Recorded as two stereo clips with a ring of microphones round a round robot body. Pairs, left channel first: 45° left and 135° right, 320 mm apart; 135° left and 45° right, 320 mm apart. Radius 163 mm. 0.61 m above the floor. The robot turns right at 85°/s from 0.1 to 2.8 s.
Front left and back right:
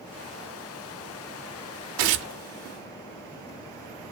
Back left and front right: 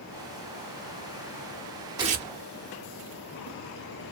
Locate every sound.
2.0 s tearing paper: 125° right, 0.5 m; by 2.3 s 95° right, 0.5 m